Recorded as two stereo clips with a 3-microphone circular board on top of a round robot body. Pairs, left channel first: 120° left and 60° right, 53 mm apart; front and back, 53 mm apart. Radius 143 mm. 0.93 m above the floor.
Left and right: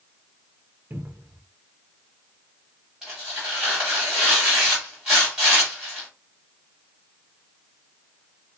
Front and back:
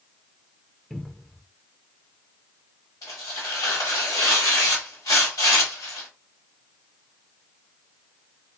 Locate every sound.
0.9 s a cupboard door: 85° right, 0.8 m
3.0 s tearing paper: 20° left, 1.0 m